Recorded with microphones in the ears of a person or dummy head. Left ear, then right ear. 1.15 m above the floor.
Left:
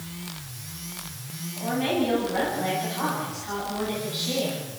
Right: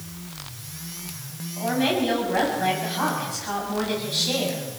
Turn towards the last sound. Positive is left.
turn(degrees=-40)  # may be behind; listen again after turning